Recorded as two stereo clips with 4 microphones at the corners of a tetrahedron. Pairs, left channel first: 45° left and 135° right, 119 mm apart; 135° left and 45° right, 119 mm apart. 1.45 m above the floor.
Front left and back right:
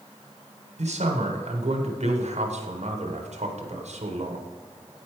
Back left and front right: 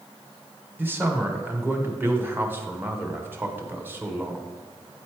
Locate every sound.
0.8 s a man speaking: 115° right, 1.0 m